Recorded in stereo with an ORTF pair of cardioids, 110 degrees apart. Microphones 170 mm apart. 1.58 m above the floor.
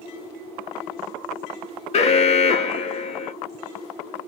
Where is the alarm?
40° left, 0.8 m.